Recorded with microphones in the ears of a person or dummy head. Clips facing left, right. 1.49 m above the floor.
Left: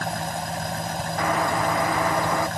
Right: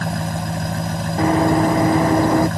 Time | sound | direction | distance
0.0 | an engine running | 75° right (ahead or behind) | ?
1.2 | running footsteps | 25° right (ahead or behind) | ?